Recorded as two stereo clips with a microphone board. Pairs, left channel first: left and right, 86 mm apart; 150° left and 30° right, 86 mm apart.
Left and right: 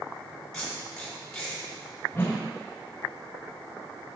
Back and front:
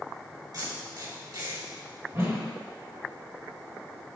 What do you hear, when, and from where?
0.5 s tape being pulled: 5° left, 3.5 m
2.1 s a whoosh: 25° left, 2.5 m